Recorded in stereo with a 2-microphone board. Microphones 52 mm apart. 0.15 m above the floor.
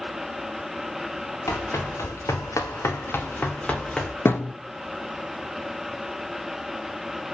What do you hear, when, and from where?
1.5 s running footsteps: 70° left (ahead or behind), 2.5 m; by 4.1 s 10° left (ahead or behind), 1.8 m
4.2 s a thud: 45° left (ahead or behind), 1.0 m